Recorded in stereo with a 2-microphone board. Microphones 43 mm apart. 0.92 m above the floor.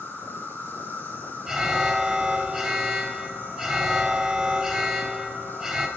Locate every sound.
0.0 s an insect: 60° left (ahead or behind), 7 m
1.5 s an alarm: 10° right (ahead or behind), 3.5 m